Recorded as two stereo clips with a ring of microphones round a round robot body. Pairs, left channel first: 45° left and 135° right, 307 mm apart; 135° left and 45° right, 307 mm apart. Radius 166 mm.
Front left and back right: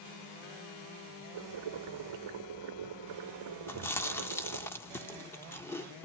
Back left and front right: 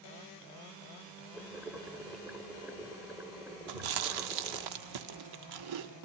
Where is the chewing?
40° right, 0.9 m.